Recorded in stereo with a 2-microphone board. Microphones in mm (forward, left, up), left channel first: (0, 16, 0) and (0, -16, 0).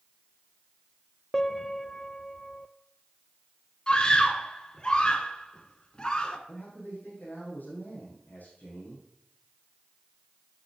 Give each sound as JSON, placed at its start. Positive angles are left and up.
{"t": 1.3, "sound": "a piano", "side_deg": 20, "distance_m": 0.5}
{"t": 3.9, "sound": "a scream", "side_deg": 25, "distance_m": 1.3}
{"t": 6.5, "sound": "a man speaking", "side_deg": 70, "distance_m": 4.0}